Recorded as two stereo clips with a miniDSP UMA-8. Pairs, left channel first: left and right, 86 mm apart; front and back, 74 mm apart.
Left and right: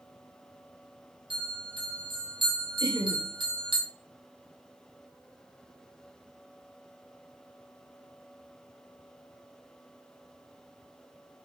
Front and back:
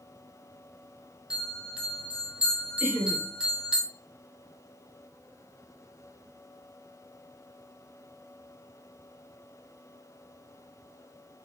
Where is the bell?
105° right, 1.7 m.